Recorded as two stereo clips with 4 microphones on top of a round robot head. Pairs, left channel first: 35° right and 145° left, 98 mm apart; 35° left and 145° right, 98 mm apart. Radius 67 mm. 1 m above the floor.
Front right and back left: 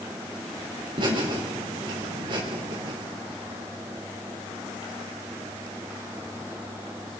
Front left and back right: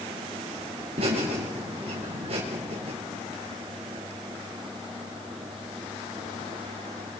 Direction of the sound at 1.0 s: 175° right.